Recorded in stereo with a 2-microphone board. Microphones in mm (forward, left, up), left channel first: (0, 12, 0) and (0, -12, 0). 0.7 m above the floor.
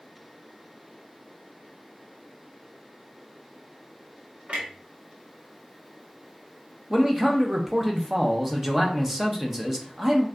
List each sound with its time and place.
4.5 s a clunk: 70° right (ahead or behind), 1.3 m
6.9 s a man speaking: 15° right (ahead or behind), 0.8 m